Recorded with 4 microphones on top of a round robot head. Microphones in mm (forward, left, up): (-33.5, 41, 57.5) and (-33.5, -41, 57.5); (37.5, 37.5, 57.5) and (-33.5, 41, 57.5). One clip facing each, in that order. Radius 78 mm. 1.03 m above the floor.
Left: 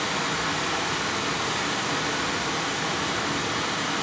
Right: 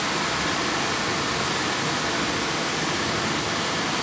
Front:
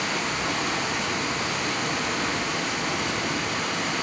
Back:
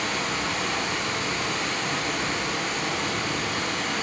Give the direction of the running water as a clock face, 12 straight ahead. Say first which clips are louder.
Right 2 dB, even; 3 o'clock.